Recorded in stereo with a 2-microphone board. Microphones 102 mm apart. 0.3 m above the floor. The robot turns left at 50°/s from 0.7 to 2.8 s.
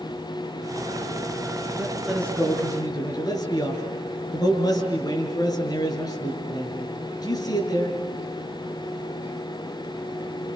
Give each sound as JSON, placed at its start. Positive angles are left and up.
{"t": 1.8, "sound": "a man speaking", "azimuth_deg": -170, "distance_m": 6.0}